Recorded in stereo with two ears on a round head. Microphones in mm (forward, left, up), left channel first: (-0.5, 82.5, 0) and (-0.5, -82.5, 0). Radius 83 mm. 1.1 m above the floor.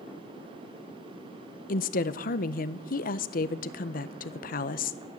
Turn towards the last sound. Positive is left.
turn(degrees=50)  # may be behind; listen again after turning